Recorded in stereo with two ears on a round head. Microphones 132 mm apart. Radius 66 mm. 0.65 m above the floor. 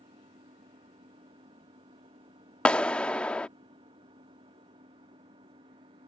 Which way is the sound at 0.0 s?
35° right (ahead or behind).